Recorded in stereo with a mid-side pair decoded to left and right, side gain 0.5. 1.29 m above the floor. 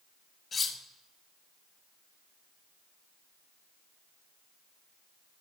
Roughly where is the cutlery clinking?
Ahead left.